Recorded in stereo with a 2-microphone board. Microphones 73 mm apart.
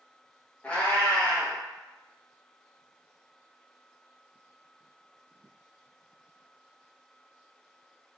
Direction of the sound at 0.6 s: 15° left (ahead or behind).